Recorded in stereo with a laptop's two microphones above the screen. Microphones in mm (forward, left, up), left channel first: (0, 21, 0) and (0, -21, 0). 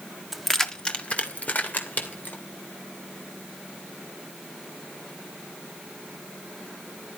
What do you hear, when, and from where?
0.3 s keys jangling: 5° right (ahead or behind), 1.3 m; by 2.4 s 45° left (ahead or behind), 3.5 m